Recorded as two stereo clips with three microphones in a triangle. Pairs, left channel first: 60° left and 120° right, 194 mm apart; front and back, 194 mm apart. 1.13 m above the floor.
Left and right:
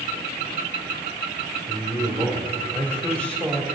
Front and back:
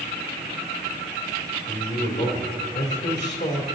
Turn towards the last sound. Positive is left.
turn(degrees=-20)